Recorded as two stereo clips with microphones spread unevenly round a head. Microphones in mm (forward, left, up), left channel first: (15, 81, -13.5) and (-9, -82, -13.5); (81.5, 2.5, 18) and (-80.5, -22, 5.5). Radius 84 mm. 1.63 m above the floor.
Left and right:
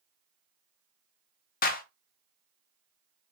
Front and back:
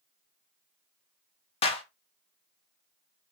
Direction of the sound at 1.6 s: 60° left.